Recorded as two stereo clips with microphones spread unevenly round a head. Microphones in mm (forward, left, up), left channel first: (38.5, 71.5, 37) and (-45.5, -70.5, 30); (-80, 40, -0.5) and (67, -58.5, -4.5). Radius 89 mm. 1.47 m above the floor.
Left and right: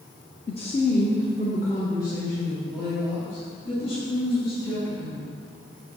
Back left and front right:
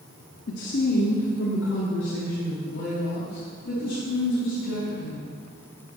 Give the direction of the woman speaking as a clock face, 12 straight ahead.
8 o'clock.